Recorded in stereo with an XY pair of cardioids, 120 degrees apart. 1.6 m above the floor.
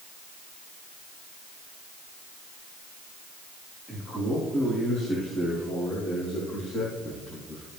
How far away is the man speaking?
About 4.5 m.